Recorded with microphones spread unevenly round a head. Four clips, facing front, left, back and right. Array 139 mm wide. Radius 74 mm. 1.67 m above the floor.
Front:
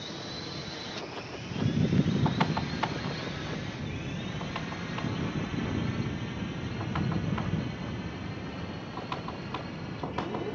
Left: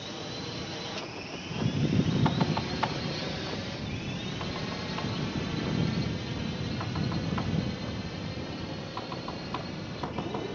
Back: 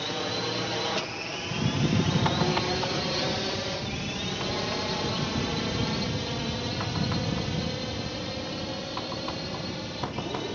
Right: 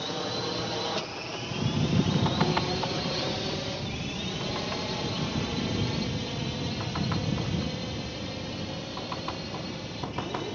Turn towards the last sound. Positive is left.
turn(degrees=-170)